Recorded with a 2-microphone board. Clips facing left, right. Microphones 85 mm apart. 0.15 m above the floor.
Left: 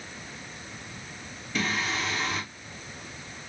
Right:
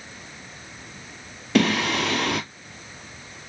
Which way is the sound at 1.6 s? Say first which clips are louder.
Right 9 dB; 80° right.